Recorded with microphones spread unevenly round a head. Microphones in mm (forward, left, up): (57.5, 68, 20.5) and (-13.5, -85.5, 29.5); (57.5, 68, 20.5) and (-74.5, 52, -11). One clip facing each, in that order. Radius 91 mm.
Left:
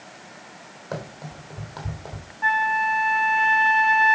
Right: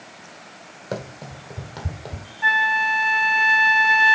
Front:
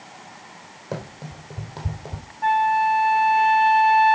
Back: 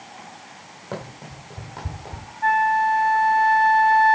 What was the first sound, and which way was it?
Running footsteps, 60° right.